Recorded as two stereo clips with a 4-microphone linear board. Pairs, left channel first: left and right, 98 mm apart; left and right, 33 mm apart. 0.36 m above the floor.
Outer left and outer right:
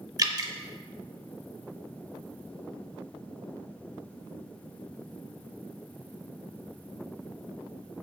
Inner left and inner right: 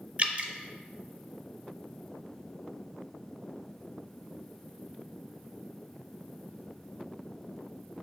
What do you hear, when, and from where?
0.2 s dripping: 40° right (ahead or behind), 0.6 m